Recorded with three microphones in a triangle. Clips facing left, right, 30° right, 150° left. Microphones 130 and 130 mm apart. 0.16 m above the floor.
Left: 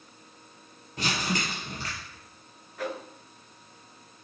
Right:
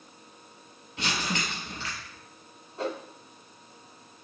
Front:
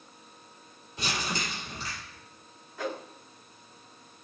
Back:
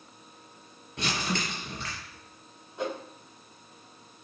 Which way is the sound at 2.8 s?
145° right.